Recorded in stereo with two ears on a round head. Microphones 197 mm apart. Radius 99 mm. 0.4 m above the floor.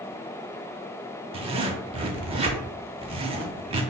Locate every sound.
1.3 s a zipper: 25° right (ahead or behind), 0.5 m